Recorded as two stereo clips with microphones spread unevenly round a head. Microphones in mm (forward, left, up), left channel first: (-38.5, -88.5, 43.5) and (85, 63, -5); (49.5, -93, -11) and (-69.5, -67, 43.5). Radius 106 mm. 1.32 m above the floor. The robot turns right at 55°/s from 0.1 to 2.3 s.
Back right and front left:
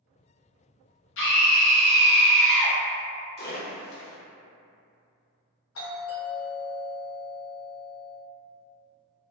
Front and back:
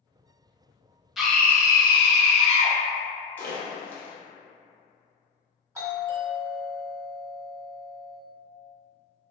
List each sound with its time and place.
1.2 s a scream: 100° right, 1.0 m; by 2.8 s 40° right, 1.0 m
3.4 s a splash: 90° right, 0.9 m
5.8 s a doorbell: 110° right, 1.7 m